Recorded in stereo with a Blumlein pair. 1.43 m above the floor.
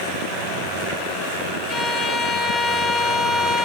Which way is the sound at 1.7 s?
15° left.